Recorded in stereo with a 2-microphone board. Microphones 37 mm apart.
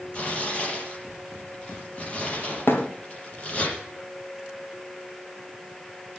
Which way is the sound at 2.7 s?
60° left (ahead or behind).